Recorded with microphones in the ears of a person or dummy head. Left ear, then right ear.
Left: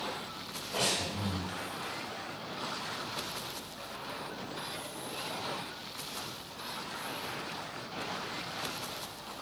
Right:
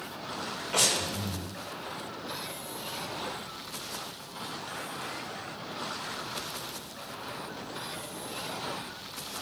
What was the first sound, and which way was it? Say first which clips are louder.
Breathing: right 4 dB; 70° right (ahead or behind).